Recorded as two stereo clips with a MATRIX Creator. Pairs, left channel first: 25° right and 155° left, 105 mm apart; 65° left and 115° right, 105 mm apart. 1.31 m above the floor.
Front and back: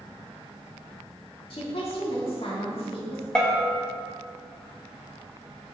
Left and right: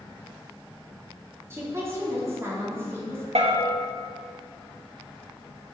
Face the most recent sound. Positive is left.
turn(degrees=-105)